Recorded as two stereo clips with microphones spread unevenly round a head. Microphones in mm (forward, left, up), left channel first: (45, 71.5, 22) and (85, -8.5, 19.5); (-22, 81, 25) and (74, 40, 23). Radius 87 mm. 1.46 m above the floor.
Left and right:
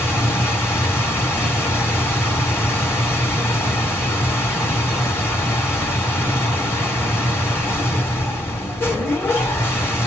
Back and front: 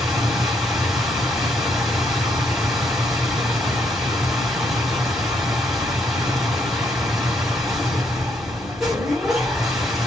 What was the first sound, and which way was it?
A machine running, 60° left.